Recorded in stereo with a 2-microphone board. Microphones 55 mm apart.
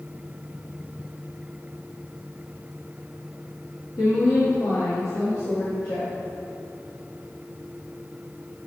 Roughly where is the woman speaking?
Left.